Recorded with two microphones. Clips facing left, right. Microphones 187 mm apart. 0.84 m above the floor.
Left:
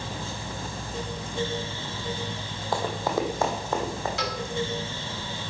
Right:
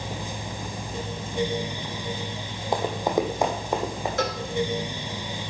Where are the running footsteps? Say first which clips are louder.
Right 3 dB; 20° right (ahead or behind), 1.3 m; by 4.1 s 15° right (ahead or behind), 2.5 m.